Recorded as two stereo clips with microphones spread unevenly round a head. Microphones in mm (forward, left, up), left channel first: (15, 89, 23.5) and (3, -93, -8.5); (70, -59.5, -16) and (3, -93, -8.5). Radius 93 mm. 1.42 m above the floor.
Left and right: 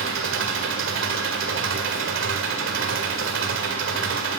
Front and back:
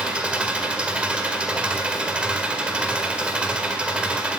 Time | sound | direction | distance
0.0 | an engine running | 85° right | 1.9 m